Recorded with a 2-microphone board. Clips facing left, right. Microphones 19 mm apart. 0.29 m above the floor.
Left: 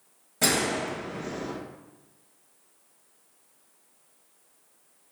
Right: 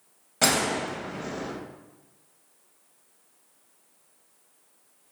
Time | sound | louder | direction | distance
0.4 | a gunshot | right 1 dB | 40° right (ahead or behind) | 0.6 m